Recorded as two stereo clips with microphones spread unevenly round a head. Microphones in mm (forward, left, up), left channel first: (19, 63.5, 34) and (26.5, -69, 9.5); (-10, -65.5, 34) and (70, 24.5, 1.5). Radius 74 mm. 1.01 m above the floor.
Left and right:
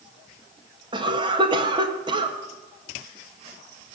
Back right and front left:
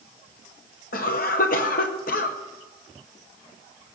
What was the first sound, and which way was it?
A cough, 135° right.